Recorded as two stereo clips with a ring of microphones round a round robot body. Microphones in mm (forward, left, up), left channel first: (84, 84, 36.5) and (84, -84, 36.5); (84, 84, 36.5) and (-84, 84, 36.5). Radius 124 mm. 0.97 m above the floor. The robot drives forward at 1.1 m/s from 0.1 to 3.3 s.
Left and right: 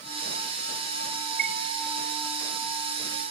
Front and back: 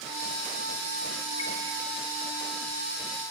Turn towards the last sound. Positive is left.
turn(degrees=-155)